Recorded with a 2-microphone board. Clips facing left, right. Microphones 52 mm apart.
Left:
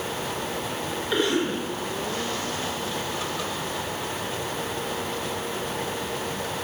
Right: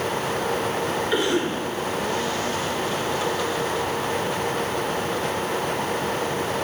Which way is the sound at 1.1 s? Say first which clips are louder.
Left 1 dB; 10° right (ahead or behind).